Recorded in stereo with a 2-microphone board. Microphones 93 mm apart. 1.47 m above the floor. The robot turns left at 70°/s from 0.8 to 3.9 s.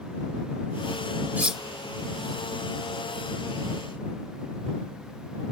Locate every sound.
1.4 s cutlery clinking: 15° right (ahead or behind); by 1.6 s centre (ahead or behind)